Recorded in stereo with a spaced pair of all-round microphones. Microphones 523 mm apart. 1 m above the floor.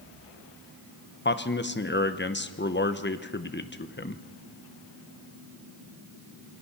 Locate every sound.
1.2 s a man speaking: 20° left (ahead or behind), 0.8 m